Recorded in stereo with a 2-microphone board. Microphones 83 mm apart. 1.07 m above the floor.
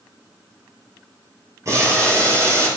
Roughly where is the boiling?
Right.